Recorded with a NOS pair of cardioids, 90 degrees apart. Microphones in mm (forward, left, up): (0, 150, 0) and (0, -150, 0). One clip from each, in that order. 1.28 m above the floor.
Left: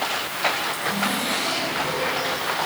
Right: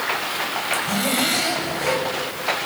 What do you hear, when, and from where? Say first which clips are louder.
0.7 s a zipper: right 2 dB; 60° right, 6 m